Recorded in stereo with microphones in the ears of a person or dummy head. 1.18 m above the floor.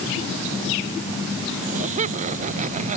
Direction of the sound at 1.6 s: 45° right (ahead or behind).